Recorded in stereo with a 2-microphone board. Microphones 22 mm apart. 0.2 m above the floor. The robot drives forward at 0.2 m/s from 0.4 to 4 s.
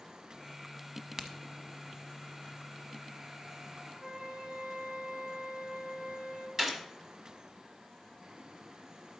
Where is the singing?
No singing in this recording.